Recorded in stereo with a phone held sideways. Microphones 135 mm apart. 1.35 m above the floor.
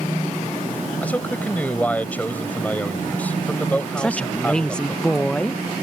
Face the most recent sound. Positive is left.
turn(degrees=5)  # may be behind; listen again after turning